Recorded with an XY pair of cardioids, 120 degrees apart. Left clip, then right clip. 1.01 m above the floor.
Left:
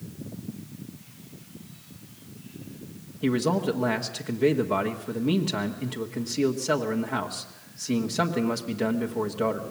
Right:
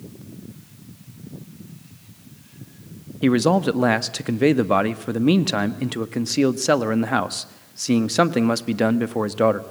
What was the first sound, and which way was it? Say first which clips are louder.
A man speaking: right 7 dB; 60° right.